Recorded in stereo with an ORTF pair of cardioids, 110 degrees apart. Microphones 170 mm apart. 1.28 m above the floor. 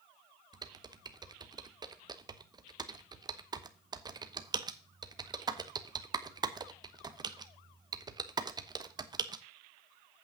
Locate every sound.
0.5 s typing on a keyboard: 25° right, 0.9 m